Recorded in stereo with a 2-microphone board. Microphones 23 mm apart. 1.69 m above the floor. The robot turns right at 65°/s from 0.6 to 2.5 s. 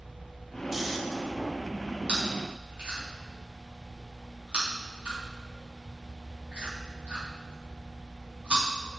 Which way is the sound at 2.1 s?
50° right (ahead or behind).